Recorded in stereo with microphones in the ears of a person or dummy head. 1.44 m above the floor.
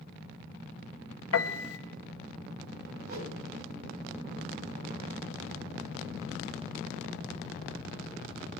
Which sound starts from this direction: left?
A piano, at 1.3 s.